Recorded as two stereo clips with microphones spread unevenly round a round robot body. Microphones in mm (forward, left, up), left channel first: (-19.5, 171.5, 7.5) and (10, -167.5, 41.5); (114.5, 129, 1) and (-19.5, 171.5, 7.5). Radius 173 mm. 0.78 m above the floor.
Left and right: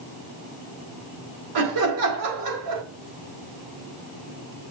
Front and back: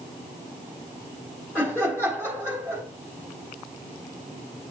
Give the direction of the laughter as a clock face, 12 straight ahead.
4 o'clock.